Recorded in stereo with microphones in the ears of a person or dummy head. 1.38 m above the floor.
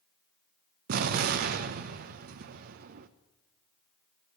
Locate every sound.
0.9 s an explosion: 50° right (ahead or behind), 0.6 m